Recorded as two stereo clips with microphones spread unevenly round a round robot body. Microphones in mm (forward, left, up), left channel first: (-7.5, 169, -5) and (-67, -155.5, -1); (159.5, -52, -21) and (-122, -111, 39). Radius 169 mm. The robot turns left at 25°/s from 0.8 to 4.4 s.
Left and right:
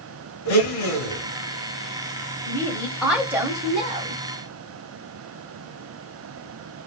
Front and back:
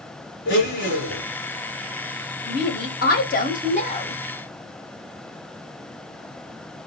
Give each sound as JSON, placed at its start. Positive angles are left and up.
{"t": 0.5, "sound": "a blender", "azimuth_deg": 45, "distance_m": 2.5}
{"t": 2.5, "sound": "a woman speaking", "azimuth_deg": 5, "distance_m": 1.1}